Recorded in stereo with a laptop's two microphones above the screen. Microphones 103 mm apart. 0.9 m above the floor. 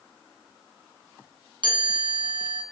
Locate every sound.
1.6 s a chime: 50° right (ahead or behind), 0.8 m